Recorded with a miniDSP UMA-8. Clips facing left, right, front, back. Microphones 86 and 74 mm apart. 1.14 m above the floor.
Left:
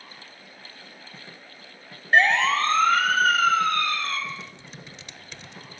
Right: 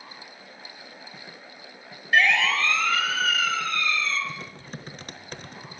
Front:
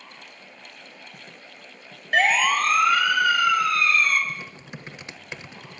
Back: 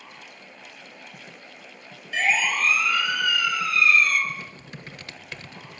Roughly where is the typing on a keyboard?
Ahead right.